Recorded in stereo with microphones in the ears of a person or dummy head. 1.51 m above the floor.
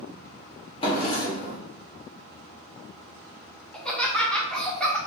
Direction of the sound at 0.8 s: 30° left (ahead or behind).